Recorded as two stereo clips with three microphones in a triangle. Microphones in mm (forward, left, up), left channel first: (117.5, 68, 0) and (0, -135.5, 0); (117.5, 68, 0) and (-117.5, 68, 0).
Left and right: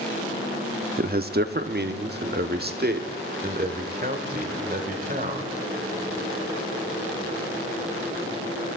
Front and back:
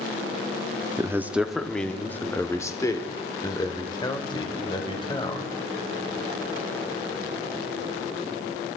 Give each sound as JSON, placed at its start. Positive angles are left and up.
{"t": 1.0, "sound": "a man speaking", "azimuth_deg": -115, "distance_m": 0.6}